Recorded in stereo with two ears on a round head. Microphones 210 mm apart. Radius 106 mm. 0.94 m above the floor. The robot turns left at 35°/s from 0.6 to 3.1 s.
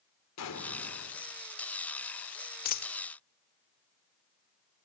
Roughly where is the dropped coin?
Left.